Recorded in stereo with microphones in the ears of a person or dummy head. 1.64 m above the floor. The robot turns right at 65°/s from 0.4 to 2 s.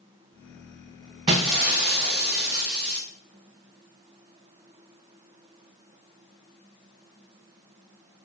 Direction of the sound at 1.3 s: 20° right (ahead or behind).